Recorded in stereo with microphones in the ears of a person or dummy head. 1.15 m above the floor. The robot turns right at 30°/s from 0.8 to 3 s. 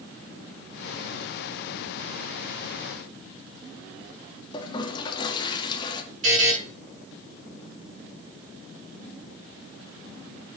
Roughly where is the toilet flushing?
Left.